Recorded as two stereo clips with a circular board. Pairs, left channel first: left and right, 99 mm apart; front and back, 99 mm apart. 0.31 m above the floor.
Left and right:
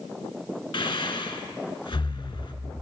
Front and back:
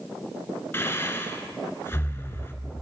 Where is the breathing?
65° left, 0.6 m.